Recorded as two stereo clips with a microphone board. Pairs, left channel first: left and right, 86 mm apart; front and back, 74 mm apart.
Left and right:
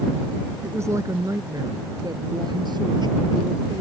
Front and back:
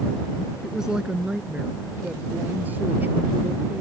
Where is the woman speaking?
100° right; by 3.8 s 120° right.